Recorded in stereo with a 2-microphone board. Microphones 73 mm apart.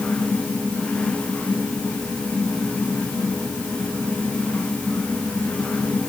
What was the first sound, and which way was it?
Only background noise.